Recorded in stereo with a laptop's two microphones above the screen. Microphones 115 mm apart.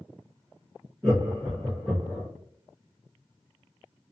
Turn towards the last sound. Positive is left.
turn(degrees=10)  # may be behind; listen again after turning